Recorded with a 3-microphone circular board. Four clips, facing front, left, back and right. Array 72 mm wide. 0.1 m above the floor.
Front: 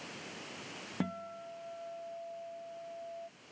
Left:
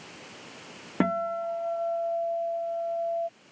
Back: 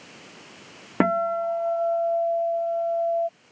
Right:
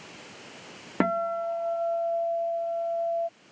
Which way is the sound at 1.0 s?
175° right.